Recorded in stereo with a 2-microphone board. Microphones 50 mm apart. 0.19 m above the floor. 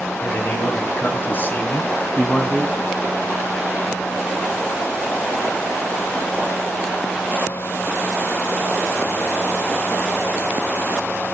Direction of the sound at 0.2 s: 50° left (ahead or behind).